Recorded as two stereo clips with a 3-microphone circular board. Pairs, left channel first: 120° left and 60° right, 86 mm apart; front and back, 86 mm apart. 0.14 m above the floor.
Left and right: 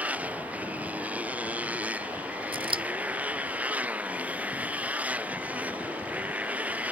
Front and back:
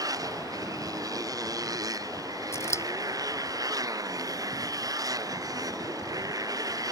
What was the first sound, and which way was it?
A motorcycle, 135° right.